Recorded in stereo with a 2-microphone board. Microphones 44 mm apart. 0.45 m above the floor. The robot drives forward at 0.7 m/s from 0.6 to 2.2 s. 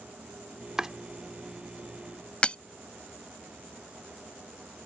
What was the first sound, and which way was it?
Chopping, 15° right (ahead or behind).